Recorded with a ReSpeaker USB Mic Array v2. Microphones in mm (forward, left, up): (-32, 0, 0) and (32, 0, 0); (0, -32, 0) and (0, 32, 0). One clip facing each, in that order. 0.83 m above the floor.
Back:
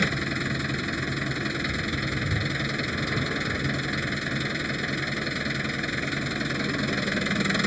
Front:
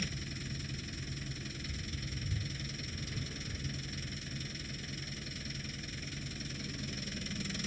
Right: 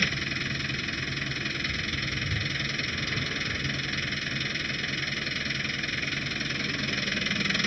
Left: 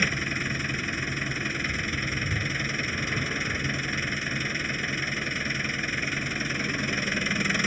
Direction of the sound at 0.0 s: 165° left.